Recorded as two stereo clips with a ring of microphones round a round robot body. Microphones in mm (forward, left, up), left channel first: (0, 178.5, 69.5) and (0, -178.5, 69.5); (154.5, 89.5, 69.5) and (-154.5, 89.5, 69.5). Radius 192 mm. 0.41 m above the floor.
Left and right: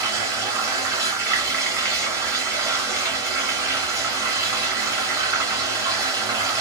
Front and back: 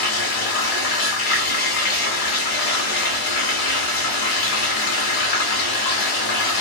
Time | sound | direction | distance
0.0 | running water | 10° right | 0.7 m